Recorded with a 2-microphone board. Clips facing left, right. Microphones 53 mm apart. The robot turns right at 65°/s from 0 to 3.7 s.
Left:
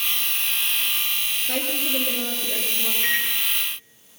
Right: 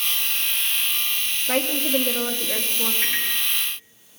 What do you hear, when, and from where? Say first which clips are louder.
1.5 s a woman speaking: right 6 dB; 135° right, 2 m; by 2.9 s 45° right, 2 m
3.0 s a microwave: left 6 dB; 85° right, 3.5 m; by 3.3 s 80° right, 3.5 m